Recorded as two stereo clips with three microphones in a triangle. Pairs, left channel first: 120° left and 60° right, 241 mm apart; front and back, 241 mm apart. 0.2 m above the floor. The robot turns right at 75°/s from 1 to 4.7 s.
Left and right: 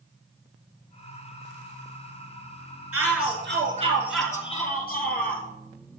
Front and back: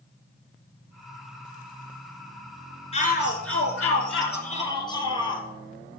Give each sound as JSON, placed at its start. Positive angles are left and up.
{"t": 2.9, "sound": "a shout", "azimuth_deg": -65, "distance_m": 3.0}